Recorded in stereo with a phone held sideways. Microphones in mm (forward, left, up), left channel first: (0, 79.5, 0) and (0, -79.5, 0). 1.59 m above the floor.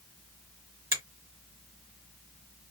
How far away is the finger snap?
About 1.3 m.